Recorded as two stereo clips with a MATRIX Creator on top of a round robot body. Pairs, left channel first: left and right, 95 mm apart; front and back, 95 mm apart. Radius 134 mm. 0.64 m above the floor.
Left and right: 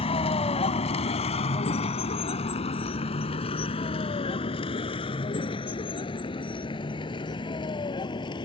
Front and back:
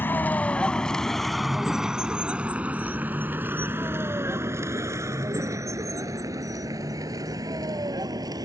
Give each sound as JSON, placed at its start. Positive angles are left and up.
{"t": 0.0, "sound": "a vehicle", "azimuth_deg": 70}